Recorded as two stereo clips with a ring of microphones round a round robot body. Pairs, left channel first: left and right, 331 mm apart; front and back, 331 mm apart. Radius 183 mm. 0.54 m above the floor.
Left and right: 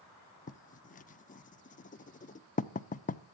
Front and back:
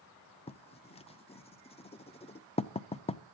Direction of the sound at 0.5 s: 50° left.